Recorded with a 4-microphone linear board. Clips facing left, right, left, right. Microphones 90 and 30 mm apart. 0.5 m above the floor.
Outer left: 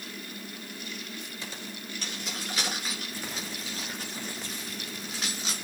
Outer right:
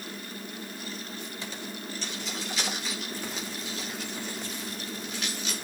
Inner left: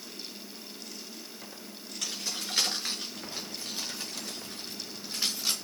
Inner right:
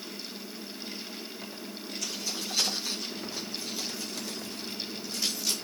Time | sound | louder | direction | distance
2.0 | keys jangling | even, inner left 1 dB | 55° left (ahead or behind) | 5 m